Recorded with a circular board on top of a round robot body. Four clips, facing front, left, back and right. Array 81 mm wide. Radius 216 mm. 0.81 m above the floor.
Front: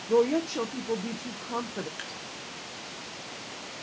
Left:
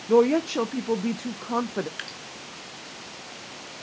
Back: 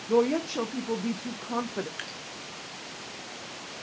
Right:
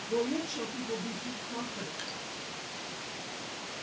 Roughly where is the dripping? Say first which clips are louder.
Left 3 dB, even; left.